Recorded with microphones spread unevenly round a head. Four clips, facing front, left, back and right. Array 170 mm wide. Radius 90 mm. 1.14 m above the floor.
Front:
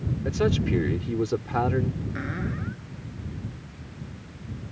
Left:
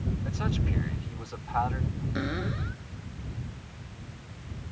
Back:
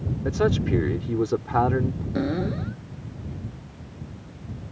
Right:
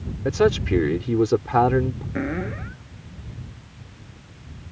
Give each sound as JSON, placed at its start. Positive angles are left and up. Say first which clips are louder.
{"t": 0.2, "sound": "a man speaking", "louder": "right 18 dB, back 2 dB", "azimuth_deg": -110}
{"t": 2.1, "sound": "a cupboard door", "louder": "right 5 dB, back 6 dB", "azimuth_deg": -160}